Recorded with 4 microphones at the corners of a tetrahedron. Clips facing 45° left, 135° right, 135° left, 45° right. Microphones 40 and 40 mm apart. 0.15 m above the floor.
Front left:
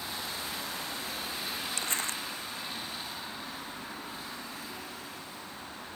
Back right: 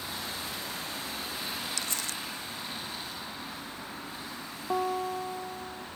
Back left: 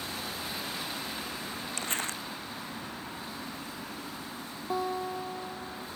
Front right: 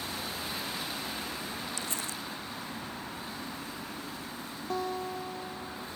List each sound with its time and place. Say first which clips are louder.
1.8 s crumpling: front left 2 dB, back left 3 dB; 95° left
4.7 s a guitar: back right 13 dB, back left 2 dB; 145° right